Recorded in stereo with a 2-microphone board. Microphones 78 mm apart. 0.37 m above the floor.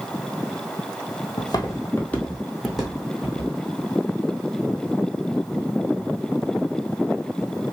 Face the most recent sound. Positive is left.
turn(degrees=-15)  # may be behind; listen again after turning